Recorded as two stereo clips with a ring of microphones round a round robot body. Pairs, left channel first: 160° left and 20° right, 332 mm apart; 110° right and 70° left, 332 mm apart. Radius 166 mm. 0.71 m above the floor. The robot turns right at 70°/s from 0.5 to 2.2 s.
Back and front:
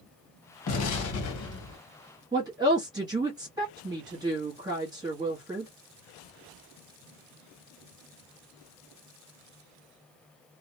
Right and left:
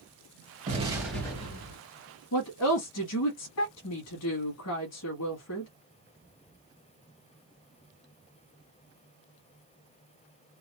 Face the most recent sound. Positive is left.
turn(degrees=-95)